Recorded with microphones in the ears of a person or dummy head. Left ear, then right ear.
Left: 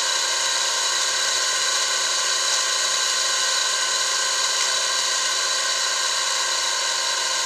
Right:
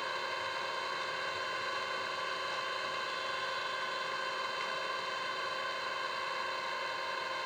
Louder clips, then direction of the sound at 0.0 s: Left 14 dB; 80° left.